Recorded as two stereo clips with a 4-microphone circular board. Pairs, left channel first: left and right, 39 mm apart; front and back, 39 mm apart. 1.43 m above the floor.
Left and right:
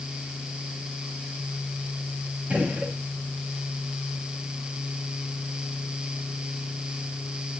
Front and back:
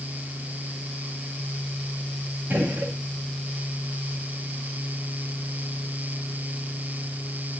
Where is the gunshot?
145° right, 2.5 m.